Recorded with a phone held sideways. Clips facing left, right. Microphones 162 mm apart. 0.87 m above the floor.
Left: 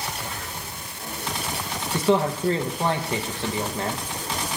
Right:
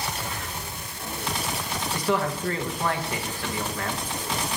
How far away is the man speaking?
About 0.8 m.